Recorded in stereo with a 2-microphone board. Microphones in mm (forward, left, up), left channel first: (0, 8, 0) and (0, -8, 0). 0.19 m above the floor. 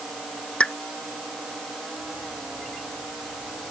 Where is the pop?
75° left (ahead or behind).